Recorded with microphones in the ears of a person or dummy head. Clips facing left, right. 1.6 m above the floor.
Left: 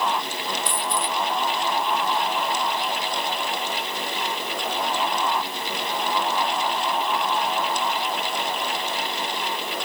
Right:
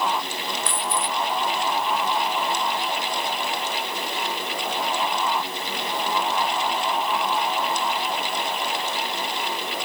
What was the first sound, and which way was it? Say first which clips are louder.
A dropped coin: even; 15° left (ahead or behind).